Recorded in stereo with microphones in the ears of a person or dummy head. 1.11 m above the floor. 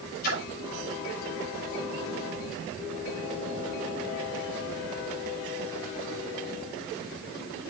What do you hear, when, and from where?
0.2 s a splash: 50° left (ahead or behind), 5.5 m